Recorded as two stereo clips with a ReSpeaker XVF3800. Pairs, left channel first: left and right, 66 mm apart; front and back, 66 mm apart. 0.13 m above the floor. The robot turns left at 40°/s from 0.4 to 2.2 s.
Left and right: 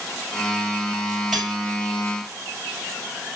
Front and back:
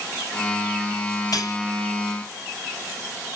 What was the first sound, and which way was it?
Cutlery clinking, 5° right.